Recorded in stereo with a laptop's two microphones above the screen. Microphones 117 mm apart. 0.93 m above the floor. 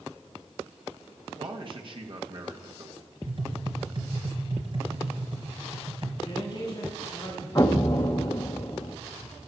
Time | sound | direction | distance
1.4 | a man speaking | 45° right (ahead or behind) | 1.4 m
3.3 | tapping | 45° right (ahead or behind) | 2.5 m
6.2 | a man speaking | 40° left (ahead or behind) | 6.5 m
7.5 | an explosion | 30° left (ahead or behind) | 0.8 m